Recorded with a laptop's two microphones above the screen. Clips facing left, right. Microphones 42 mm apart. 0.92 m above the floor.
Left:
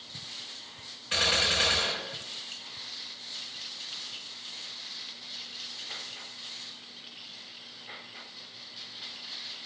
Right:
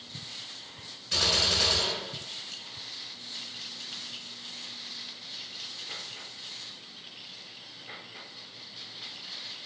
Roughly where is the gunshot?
Left.